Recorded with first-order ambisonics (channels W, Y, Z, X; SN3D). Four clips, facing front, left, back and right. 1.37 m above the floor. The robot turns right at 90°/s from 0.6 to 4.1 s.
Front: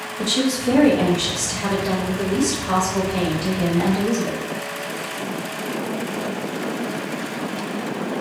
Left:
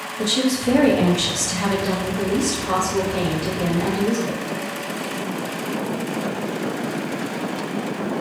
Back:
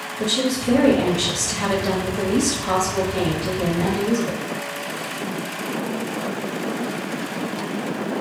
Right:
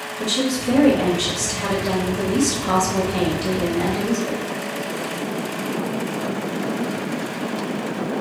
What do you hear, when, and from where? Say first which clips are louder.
0.2 s a woman speaking: left 2 dB, front 1 dB; 50° left, 0.9 m; by 4.4 s 5° left, 0.9 m